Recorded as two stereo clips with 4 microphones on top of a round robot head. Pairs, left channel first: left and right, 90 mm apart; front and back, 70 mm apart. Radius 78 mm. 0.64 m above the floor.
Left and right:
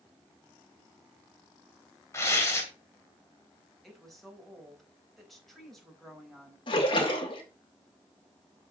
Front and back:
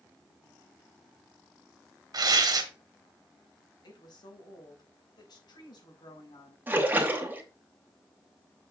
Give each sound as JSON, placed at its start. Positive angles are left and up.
{"t": 2.1, "sound": "tearing paper", "azimuth_deg": 155, "distance_m": 2.0}
{"t": 3.8, "sound": "a woman speaking", "azimuth_deg": 5, "distance_m": 4.5}
{"t": 6.7, "sound": "a splash", "azimuth_deg": 120, "distance_m": 2.5}